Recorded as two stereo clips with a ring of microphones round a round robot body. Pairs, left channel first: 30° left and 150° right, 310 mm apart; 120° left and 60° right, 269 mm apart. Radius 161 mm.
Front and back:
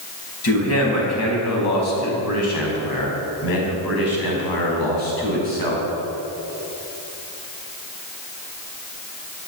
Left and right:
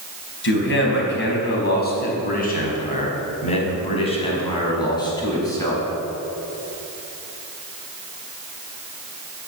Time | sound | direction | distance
0.4 | a man speaking | 75° left | 5 m